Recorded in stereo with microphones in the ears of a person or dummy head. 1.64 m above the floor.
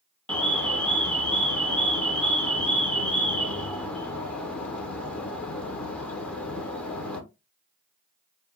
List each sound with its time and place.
0.3 s an alarm: 10° left (ahead or behind), 0.6 m